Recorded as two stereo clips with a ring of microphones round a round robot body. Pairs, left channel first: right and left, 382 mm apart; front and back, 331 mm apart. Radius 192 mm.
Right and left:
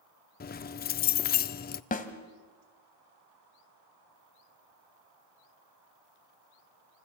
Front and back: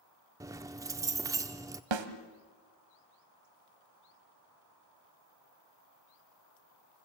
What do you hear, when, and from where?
0.4 s keys jangling: 115° right, 0.5 m
1.9 s a snare drum: 160° right, 1.7 m